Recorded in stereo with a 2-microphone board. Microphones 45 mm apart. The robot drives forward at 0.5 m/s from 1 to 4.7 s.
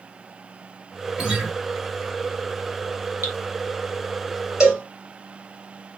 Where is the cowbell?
15° right (ahead or behind), 3.5 m.